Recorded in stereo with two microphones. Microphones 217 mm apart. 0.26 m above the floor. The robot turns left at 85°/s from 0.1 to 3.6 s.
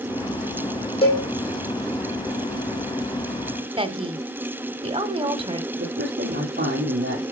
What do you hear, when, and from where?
1.0 s a cowbell: 25° left (ahead or behind), 4 m; by 1.2 s 45° left (ahead or behind), 4 m
3.8 s a woman speaking: 25° right (ahead or behind), 1.2 m
5.7 s a man speaking: 50° right (ahead or behind), 6.5 m